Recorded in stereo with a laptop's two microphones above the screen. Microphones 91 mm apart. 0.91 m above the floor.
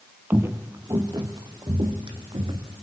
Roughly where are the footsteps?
Right.